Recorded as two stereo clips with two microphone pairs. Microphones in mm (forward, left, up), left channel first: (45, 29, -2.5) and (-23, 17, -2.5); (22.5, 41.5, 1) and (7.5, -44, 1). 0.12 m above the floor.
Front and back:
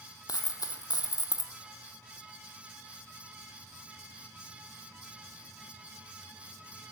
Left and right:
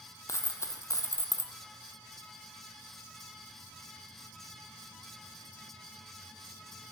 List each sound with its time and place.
0.3 s a dropped coin: 25° left, 0.5 m